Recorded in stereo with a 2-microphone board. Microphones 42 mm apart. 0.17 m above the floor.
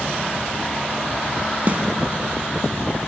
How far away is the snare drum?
About 0.6 m.